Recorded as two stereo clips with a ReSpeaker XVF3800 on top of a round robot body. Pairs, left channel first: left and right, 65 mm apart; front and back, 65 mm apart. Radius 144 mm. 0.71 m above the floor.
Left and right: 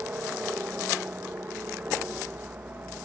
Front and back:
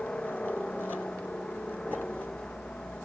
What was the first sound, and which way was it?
A helicopter, 55° right.